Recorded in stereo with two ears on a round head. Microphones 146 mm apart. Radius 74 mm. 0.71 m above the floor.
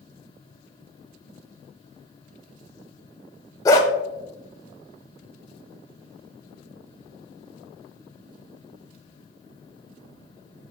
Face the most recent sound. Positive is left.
turn(degrees=20)  # may be behind; listen again after turning